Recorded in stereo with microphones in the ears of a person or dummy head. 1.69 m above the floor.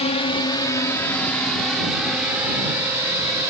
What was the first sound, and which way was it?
A drone, 30° left (ahead or behind).